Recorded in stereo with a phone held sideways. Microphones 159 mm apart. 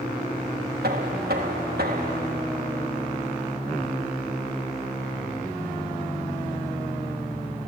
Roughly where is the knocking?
Right.